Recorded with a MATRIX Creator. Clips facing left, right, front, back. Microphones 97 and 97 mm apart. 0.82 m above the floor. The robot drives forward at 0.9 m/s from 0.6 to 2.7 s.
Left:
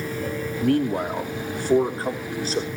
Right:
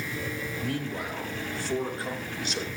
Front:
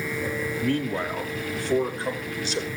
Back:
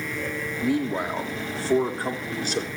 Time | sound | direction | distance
0.6 | a man speaking | 100° left | 2.0 m